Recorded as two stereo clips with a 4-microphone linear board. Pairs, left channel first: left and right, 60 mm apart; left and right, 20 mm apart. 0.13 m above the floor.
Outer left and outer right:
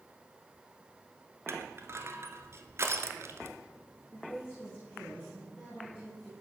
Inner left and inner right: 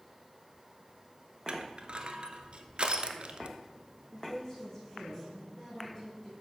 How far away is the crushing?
About 0.7 m.